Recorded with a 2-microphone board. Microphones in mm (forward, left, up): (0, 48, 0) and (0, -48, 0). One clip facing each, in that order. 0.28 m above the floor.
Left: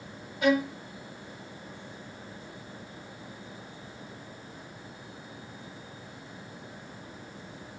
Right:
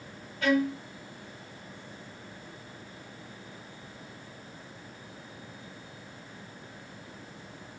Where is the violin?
15° left (ahead or behind), 0.8 m.